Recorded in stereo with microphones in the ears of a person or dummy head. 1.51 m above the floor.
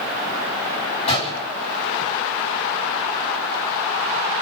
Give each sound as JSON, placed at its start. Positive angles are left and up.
{"t": 1.1, "sound": "a gunshot", "side_deg": 30, "distance_m": 5.5}